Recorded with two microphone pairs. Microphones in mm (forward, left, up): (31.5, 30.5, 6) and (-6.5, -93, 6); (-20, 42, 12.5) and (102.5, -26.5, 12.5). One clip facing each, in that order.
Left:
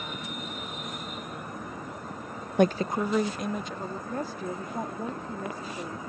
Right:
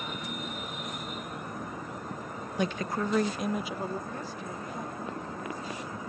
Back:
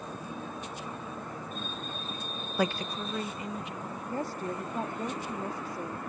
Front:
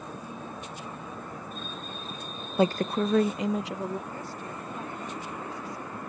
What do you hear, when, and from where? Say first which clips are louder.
2.6 s a woman speaking: left 7 dB, front 7 dB; 40° left; by 4.0 s 30° right
4.1 s a woman speaking: left 5 dB, back 4 dB; 110° left